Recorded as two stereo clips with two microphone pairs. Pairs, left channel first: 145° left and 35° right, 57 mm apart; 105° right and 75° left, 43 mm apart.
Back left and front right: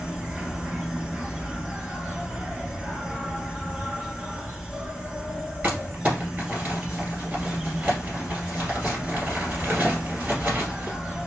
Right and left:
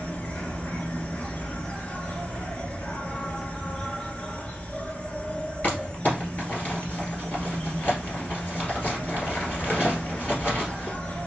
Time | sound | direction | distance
0.0 | an insect | 90° right | 0.9 m
5.6 | crumpling | 75° right | 2 m